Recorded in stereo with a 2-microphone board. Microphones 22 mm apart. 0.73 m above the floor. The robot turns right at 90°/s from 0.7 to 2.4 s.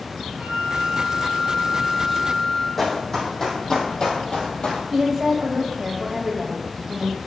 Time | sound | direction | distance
0.4 | a flute | 65° right | 2.5 m
2.8 | running footsteps | 10° left (ahead or behind) | 2 m
4.9 | a woman speaking | 10° right (ahead or behind) | 1.2 m